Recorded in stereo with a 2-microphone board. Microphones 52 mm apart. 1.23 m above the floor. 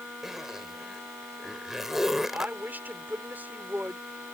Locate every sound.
0.2 s a zipper: 10° right (ahead or behind)
2.3 s a woman speaking: 35° right (ahead or behind)